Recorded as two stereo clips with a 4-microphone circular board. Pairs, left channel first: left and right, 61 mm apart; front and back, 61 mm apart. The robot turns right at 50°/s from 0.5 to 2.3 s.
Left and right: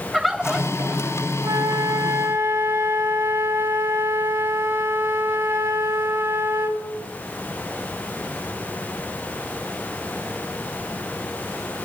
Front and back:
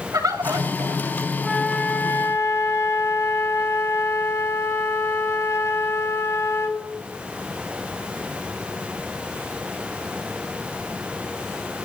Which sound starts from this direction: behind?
A bird, at 0.1 s.